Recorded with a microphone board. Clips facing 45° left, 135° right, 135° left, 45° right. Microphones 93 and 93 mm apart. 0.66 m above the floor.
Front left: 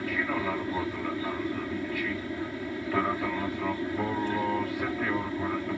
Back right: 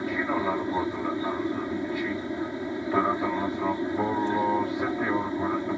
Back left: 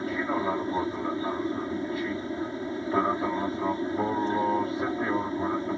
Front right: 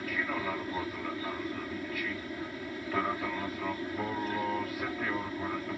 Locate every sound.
0.0 s an aircraft: 170° left